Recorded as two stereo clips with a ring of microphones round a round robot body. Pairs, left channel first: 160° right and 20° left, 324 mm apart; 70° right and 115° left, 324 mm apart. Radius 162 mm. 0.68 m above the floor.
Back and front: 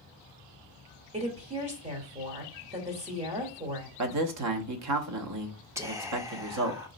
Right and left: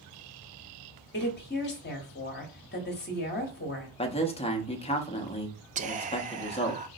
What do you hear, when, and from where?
1.1 s a woman speaking: 35° right, 1.1 m
4.0 s a man speaking: straight ahead, 0.8 m
5.8 s whispering: 90° left, 0.5 m